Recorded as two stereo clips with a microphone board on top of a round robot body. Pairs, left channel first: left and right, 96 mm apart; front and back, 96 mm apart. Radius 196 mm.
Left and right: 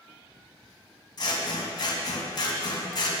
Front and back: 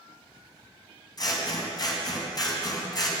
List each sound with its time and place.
1.2 s scissors: 45° left, 3 m